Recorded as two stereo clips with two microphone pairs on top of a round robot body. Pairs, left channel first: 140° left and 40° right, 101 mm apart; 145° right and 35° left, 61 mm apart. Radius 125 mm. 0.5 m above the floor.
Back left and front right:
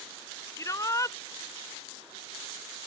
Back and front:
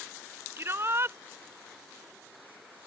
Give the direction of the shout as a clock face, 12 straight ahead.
9 o'clock.